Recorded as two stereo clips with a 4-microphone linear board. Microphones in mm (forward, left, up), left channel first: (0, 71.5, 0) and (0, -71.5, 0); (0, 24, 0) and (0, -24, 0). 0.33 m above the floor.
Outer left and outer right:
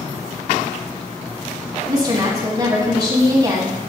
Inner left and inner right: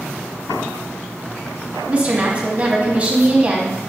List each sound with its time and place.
1.9 s a woman speaking: 25° right (ahead or behind), 1.8 m